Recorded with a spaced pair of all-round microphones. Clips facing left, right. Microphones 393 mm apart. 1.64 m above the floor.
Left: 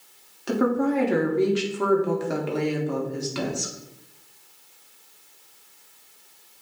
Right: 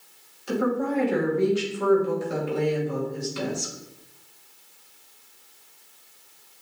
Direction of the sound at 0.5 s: 75° left (ahead or behind).